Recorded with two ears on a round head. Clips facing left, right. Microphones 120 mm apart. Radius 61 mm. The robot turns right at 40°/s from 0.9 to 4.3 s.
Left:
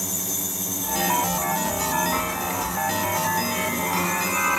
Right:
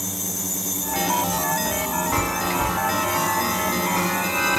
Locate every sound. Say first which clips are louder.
2.1 s a chime: right 3 dB; 55° right (ahead or behind), 2 m; by 4.6 s 35° right (ahead or behind), 2 m